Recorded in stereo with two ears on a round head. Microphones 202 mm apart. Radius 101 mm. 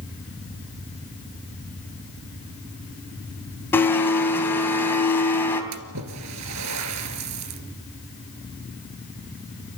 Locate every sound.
3.7 s a blender: 10° left (ahead or behind), 3 m
5.7 s a splash: 85° right, 2 m